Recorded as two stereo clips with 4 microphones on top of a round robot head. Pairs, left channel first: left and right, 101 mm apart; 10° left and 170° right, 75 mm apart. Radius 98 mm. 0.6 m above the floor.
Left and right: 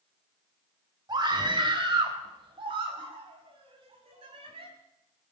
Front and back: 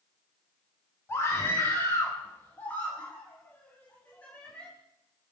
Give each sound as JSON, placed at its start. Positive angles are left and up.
{"t": 1.1, "sound": "a scream", "azimuth_deg": -50, "distance_m": 3.5}